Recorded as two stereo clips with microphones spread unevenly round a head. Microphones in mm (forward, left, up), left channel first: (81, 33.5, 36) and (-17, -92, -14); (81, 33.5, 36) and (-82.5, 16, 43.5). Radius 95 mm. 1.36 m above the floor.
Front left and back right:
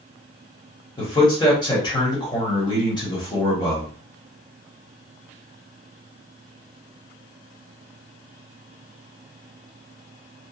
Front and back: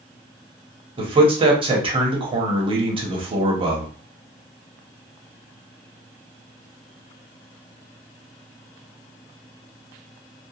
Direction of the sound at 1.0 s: 125° left.